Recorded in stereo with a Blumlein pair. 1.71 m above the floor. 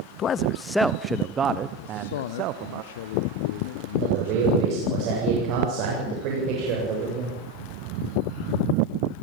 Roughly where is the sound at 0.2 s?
Ahead left.